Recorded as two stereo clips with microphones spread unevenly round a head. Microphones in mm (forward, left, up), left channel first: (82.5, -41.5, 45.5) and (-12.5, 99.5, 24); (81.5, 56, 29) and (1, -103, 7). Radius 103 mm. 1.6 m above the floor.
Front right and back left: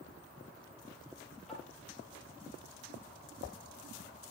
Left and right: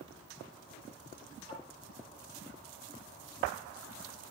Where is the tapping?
140° right, 6 m.